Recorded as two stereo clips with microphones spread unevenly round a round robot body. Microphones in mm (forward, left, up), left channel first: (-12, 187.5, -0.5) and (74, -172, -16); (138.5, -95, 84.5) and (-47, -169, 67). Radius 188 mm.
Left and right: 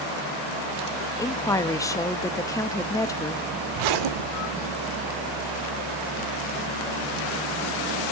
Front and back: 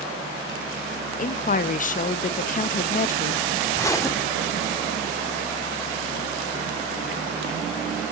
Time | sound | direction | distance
1.2 | a woman speaking | 25° left | 0.5 m
3.7 | a zipper | 55° right | 0.9 m